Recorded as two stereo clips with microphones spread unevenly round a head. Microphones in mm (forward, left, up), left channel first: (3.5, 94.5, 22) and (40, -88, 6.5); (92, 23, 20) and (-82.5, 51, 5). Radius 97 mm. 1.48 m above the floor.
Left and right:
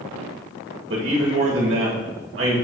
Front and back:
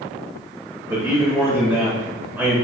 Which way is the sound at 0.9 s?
110° right.